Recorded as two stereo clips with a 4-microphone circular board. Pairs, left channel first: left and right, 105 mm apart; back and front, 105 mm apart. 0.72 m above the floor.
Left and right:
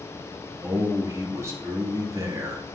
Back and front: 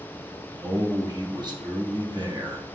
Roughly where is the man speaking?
Ahead right.